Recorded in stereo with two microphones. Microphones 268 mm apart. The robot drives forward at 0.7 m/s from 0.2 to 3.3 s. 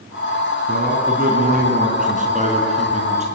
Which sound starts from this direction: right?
A man speaking, at 0.7 s.